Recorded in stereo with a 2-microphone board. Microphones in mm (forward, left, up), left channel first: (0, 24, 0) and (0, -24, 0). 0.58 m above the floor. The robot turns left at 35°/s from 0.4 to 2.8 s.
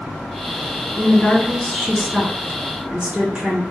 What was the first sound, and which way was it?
A woman speaking, 35° left.